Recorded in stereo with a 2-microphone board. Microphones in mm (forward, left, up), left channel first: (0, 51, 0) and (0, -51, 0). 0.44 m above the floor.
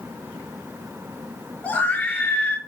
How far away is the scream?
About 7.5 m.